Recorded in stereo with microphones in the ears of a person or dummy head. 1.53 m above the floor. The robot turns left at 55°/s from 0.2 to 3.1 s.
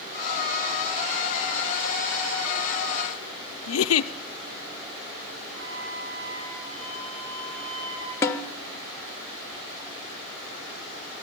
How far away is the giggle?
About 0.6 m.